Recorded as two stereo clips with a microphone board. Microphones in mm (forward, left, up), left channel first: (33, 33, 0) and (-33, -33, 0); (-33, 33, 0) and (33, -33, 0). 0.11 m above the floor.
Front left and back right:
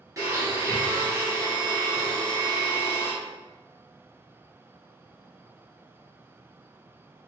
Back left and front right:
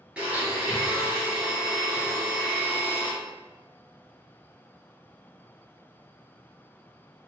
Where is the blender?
115° right, 1.7 m.